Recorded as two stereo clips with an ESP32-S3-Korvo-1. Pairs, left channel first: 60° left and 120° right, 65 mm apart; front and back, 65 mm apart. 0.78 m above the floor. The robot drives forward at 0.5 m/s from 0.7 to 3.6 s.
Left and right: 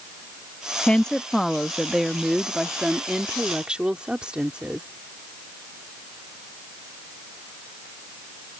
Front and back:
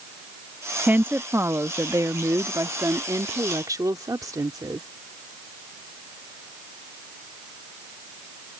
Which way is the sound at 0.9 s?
130° left.